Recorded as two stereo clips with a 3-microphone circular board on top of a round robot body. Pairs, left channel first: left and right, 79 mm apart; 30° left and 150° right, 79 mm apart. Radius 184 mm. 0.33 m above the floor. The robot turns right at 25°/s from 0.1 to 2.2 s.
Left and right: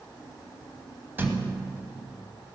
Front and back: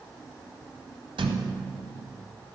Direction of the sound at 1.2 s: 155° right.